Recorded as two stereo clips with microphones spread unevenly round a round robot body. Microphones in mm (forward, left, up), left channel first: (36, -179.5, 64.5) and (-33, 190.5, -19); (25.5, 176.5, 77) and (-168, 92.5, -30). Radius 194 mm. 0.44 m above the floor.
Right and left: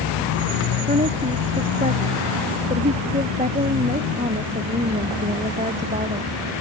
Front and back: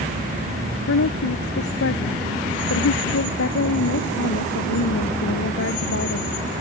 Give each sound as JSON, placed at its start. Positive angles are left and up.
{"t": 0.9, "sound": "a woman speaking", "azimuth_deg": 30}